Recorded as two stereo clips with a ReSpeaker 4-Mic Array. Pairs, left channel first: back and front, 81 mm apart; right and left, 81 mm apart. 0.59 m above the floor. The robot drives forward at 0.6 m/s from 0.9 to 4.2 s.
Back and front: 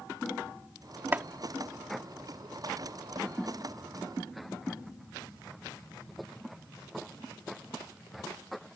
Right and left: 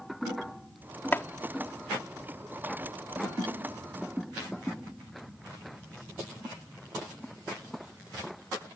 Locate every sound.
1.1 s chopping: 45° right; by 1.3 s 50° right